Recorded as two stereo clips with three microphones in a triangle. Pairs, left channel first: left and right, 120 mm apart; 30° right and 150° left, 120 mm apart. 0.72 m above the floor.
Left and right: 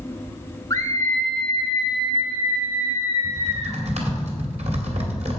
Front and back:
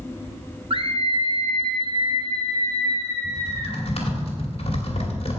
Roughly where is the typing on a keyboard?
Ahead right.